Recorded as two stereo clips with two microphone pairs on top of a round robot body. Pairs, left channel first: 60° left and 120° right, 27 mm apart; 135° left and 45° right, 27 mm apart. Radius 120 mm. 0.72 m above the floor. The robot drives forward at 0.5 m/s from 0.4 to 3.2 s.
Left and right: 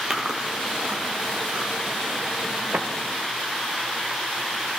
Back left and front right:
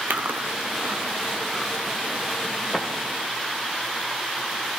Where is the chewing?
55° right, 0.6 m; by 2.9 s 155° right, 1.1 m.